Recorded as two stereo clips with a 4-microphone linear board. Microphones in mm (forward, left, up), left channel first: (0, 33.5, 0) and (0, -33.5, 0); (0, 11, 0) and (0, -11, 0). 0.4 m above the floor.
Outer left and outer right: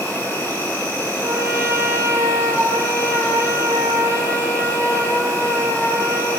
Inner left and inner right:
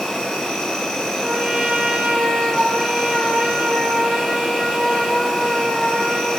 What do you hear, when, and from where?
0.0 s an insect: 25° left (ahead or behind), 6 m
1.2 s a trumpet: 50° right (ahead or behind), 4 m